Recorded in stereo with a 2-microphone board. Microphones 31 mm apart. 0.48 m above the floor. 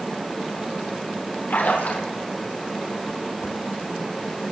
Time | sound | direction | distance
1.5 | a splash | 75° left (ahead or behind) | 5 m